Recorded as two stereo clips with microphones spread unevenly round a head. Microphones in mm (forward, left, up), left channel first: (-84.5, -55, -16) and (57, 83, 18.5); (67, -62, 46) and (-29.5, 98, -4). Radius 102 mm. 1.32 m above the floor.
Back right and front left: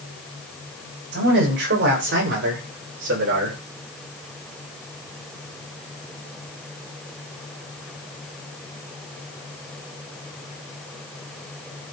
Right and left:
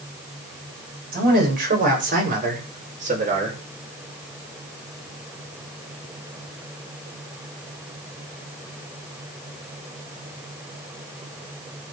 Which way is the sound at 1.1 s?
80° left.